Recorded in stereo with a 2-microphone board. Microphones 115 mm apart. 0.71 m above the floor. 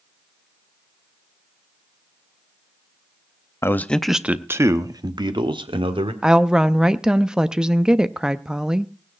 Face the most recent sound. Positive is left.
turn(degrees=-5)  # may be behind; listen again after turning